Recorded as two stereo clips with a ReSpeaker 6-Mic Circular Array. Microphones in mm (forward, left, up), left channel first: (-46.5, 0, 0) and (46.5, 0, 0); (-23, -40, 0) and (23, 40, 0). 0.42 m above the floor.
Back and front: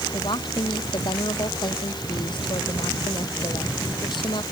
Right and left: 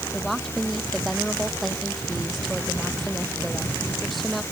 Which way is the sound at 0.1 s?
150° left.